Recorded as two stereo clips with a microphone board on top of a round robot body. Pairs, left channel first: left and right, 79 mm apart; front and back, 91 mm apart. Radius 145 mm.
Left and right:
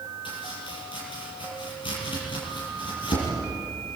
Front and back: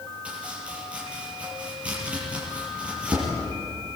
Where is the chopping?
100° left, 6.5 m.